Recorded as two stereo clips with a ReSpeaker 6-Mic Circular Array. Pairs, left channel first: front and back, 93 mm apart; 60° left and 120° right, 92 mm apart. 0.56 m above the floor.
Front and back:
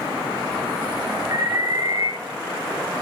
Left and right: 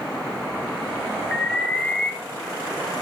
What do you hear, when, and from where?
1.3 s an alarm: 140° left, 3.5 m